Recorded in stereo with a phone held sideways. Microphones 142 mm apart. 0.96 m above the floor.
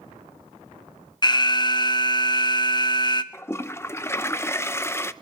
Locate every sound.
1.2 s an alarm: 30° left (ahead or behind), 0.7 m
3.3 s a toilet flushing: 20° left (ahead or behind), 0.5 m